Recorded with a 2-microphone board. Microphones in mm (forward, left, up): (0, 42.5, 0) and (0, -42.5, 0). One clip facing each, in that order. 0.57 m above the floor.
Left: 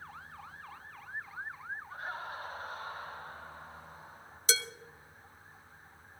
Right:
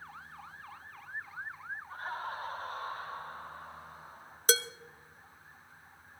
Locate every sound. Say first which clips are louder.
1.9 s laughter: right 4 dB; 50° right (ahead or behind), 5 m; by 4.4 s 65° right (ahead or behind), 7 m
4.5 s dishes clattering: right 5 dB; 45° right (ahead or behind), 0.9 m